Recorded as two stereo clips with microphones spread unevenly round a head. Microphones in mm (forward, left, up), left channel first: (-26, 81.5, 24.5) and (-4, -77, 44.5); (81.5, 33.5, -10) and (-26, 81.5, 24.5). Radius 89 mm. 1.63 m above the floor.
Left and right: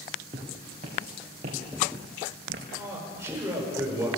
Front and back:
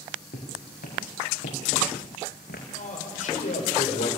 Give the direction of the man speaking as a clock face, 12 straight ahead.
12 o'clock.